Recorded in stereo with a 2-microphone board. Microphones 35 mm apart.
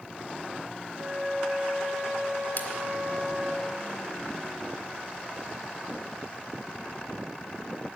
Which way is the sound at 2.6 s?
55° left (ahead or behind).